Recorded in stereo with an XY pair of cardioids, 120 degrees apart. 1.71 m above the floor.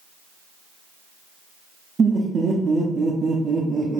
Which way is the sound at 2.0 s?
30° right.